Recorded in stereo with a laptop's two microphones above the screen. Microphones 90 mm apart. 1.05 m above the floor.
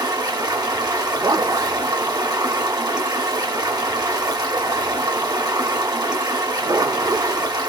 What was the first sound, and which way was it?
Running water, 50° right (ahead or behind).